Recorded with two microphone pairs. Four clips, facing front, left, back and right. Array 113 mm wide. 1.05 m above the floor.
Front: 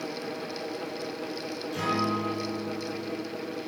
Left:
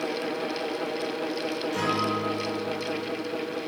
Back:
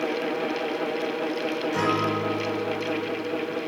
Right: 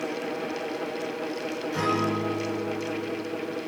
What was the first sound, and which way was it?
A guitar, straight behind.